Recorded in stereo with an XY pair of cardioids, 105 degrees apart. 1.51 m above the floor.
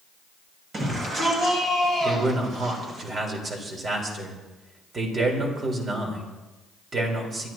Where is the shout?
50° right, 7.5 m; by 3.0 s 65° right, 6.5 m.